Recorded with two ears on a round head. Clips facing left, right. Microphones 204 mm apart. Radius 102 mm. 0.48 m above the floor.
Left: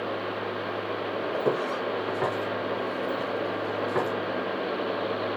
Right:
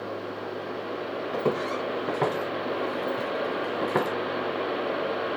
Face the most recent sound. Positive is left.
turn(degrees=-65)  # may be behind; listen again after turning